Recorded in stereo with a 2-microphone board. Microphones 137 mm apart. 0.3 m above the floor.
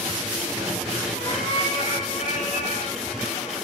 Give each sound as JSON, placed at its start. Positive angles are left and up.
{"t": 1.1, "sound": "a cat meowing", "side_deg": 85, "distance_m": 6.0}